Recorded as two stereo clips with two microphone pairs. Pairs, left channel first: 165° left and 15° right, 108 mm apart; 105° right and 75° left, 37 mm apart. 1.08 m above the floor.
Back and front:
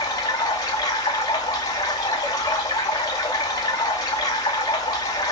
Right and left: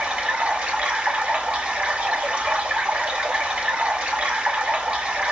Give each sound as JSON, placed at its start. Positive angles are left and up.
{"t": 0.0, "sound": "running water", "azimuth_deg": 115, "distance_m": 2.0}